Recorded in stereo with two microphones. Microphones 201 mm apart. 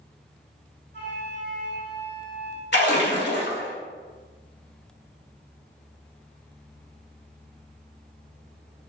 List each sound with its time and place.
0.9 s a flute: 60° right (ahead or behind), 0.7 m
2.7 s a splash: 60° left (ahead or behind), 0.7 m